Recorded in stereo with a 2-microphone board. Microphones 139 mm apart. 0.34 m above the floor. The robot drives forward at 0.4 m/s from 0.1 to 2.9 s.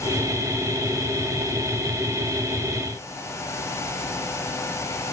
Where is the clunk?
No clunk in this recording.